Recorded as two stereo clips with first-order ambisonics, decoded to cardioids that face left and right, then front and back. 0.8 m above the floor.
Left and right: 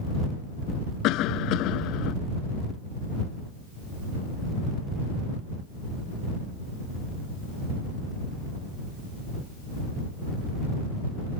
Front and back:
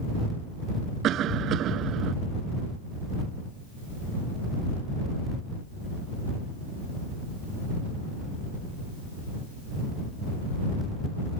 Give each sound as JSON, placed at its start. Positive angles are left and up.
{"t": 1.0, "sound": "a cough", "azimuth_deg": 130}